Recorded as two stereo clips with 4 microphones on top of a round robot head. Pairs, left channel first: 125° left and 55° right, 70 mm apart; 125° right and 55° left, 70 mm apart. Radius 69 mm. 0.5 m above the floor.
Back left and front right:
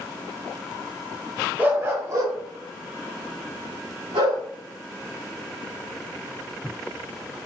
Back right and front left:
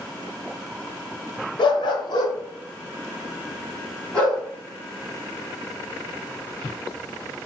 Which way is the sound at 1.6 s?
125° right.